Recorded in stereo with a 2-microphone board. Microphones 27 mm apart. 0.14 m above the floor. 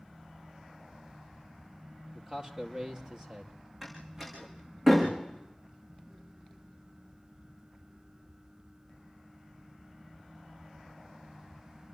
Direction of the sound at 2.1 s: 30° right (ahead or behind).